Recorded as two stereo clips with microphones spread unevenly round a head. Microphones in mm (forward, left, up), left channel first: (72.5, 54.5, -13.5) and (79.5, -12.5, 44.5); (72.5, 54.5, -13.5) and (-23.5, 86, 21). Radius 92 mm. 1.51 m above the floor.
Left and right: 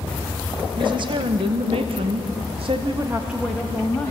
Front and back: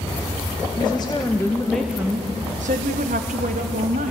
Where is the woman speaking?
75° right, 2.0 m; by 4.1 s 170° left, 2 m.